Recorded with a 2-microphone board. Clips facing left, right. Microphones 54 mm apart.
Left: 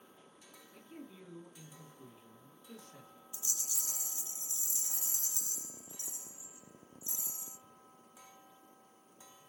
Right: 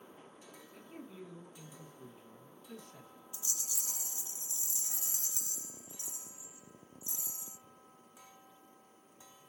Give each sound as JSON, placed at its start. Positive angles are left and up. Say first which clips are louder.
{"t": 0.7, "sound": "a man speaking", "louder": "right 1 dB", "side_deg": -10, "distance_m": 1.8}
{"t": 3.3, "sound": "a rattle", "louder": "even", "side_deg": -15, "distance_m": 1.1}